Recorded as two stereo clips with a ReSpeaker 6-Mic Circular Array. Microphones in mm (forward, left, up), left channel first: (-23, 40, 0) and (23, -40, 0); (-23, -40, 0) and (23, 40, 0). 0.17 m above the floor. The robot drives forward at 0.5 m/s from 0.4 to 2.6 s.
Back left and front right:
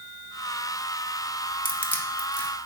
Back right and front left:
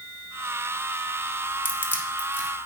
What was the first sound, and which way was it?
Crushing, straight behind.